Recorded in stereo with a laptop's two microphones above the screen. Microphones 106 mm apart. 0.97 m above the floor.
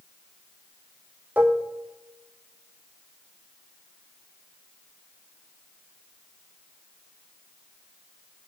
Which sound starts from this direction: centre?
Dishes clattering, at 1.4 s.